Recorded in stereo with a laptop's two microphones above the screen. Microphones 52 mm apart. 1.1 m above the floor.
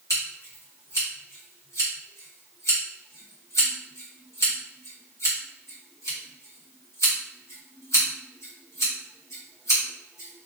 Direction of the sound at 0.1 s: 80° left.